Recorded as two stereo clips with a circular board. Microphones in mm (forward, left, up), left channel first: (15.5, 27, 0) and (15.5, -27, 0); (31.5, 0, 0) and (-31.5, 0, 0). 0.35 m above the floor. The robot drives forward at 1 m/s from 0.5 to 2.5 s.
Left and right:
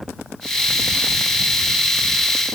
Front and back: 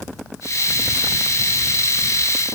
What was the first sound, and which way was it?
Only background noise.